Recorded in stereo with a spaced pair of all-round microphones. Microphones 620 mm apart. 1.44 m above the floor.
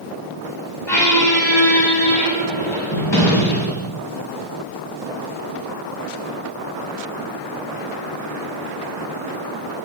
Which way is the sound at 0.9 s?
45° left (ahead or behind).